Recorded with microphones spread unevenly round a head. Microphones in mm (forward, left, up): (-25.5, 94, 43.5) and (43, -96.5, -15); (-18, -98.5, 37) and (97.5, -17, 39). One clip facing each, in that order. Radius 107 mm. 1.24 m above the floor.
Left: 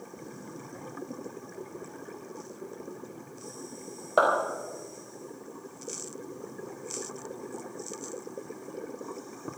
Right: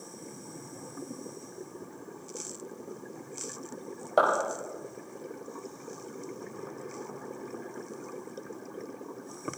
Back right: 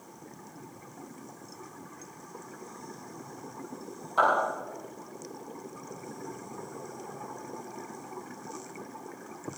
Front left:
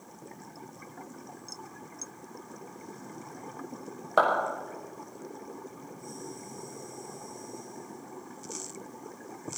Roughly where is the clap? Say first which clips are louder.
Left 1 dB, front left 1 dB; ahead left.